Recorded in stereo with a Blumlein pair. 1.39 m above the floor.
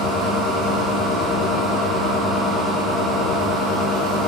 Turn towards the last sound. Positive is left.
turn(degrees=5)